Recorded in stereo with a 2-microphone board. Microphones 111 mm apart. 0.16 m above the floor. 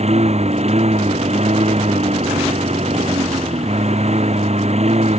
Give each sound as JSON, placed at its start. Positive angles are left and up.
{"t": 0.0, "sound": "a lawn mower", "side_deg": -80}